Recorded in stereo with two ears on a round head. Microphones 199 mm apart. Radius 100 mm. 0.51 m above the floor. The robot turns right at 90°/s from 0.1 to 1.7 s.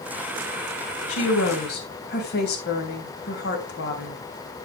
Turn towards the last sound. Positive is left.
turn(degrees=125)